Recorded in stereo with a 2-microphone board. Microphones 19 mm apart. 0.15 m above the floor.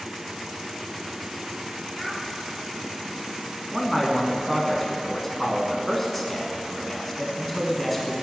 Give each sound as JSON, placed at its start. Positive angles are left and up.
{"t": 1.9, "sound": "a child speaking", "side_deg": 20, "distance_m": 1.5}
{"t": 3.7, "sound": "a man speaking", "side_deg": 5, "distance_m": 1.1}